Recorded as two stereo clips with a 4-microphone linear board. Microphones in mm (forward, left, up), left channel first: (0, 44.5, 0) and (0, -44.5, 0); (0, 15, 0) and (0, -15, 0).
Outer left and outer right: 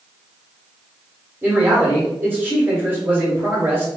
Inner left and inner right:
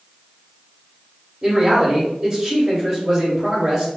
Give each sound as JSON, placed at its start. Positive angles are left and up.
{"t": 1.4, "sound": "a man speaking", "side_deg": -20, "distance_m": 1.2}